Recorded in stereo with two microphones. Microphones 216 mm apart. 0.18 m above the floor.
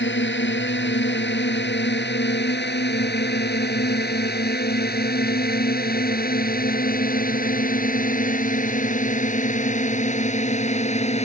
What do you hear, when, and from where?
0.0 s a drone: 60° left (ahead or behind); by 11.3 s 30° left (ahead or behind)